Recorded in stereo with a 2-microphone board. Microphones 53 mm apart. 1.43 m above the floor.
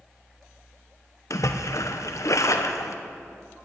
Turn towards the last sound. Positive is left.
turn(degrees=70)  # may be behind; listen again after turning